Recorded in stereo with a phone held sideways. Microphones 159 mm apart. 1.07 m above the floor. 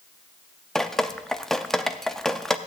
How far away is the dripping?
About 0.6 m.